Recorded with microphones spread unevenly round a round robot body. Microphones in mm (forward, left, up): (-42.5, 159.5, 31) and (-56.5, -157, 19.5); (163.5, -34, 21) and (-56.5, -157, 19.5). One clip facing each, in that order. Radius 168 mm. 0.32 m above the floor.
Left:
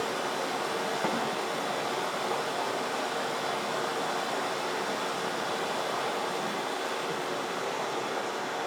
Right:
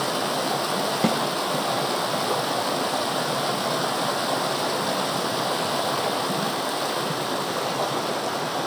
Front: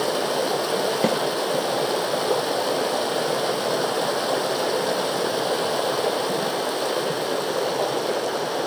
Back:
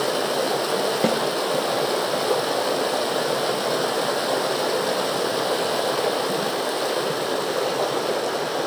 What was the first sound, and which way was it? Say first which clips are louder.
Running water: right 6 dB, even; 60° right.